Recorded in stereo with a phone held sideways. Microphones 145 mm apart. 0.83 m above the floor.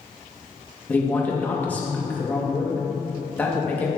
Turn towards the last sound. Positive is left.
turn(degrees=10)  # may be behind; listen again after turning